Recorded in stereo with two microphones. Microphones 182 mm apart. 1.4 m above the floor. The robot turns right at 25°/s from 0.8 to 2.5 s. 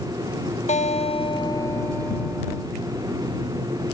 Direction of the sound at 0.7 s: 140° left.